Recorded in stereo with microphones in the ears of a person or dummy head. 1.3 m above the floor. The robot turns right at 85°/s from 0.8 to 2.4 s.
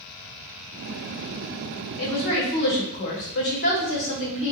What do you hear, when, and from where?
2.0 s a woman speaking: 90° left, 1.8 m; by 4.5 s 125° left, 1.8 m